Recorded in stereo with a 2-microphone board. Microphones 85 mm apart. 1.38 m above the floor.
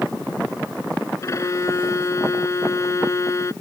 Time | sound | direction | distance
1.2 | a violin | 35° left (ahead or behind) | ?